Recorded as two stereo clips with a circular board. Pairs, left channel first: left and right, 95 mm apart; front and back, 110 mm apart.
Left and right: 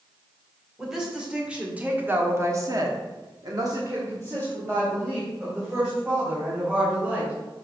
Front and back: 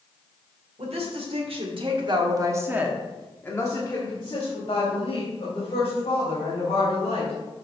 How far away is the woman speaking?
About 2.5 m.